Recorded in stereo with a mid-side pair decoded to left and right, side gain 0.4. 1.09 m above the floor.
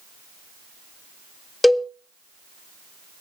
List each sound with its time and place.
1.6 s a cowbell: 15° left, 1.5 m